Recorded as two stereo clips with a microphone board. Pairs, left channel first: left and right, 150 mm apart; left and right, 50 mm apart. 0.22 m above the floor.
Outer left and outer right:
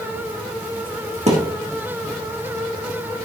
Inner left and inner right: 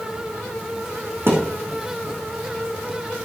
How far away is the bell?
No bell in this recording.